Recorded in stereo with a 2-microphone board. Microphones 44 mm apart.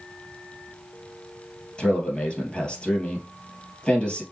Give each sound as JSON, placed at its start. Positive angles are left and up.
{"t": 1.8, "sound": "a man speaking", "side_deg": 25, "distance_m": 2.5}